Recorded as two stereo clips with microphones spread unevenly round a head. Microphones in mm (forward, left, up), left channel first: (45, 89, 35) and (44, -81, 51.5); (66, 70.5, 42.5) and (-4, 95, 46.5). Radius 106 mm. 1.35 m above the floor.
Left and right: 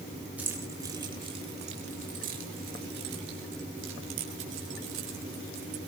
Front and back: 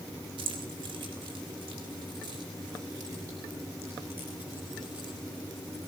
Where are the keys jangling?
170° right, 1.9 m; by 5.8 s 115° right, 4 m.